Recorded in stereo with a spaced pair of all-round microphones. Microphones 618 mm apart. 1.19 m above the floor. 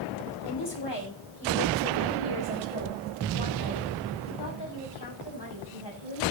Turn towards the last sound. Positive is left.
turn(degrees=35)  # may be behind; listen again after turning